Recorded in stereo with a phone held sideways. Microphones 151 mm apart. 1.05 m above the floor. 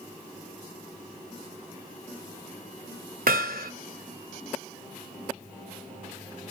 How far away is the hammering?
About 1.8 m.